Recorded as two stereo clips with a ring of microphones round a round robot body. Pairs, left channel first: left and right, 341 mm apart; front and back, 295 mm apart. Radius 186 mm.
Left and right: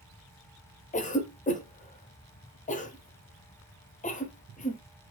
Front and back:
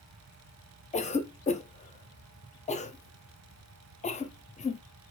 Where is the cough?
45° left, 0.9 m.